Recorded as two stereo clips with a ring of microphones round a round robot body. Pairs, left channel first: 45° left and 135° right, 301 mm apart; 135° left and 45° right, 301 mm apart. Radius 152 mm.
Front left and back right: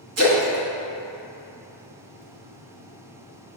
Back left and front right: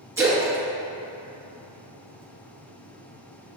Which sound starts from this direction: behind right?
A splash, at 0.2 s.